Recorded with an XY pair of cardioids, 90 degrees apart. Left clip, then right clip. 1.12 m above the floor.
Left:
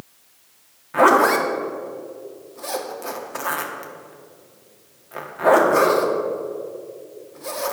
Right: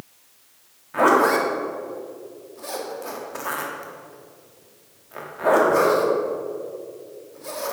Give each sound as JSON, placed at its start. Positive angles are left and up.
{"t": 0.9, "sound": "a zipper", "azimuth_deg": 30, "distance_m": 1.4}